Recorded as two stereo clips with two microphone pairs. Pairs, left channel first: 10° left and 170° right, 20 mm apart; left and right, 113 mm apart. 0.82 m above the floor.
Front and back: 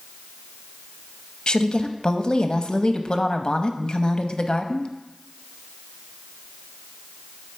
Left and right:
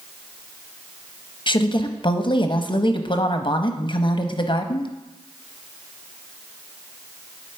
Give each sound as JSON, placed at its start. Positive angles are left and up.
{"t": 1.5, "sound": "a woman speaking", "azimuth_deg": 55, "distance_m": 0.6}